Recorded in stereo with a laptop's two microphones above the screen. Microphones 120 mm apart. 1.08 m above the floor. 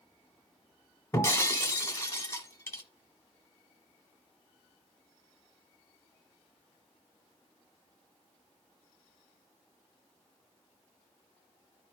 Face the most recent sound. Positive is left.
turn(degrees=25)  # may be behind; listen again after turning